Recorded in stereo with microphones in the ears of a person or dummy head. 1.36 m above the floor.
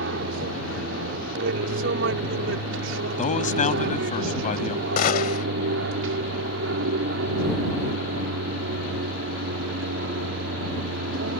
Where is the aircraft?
60° right (ahead or behind).